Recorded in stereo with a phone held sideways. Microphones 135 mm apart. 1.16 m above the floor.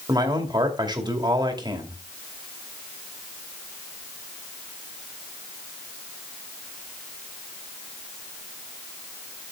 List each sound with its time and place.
0.1 s a man speaking: 30° right (ahead or behind), 2 m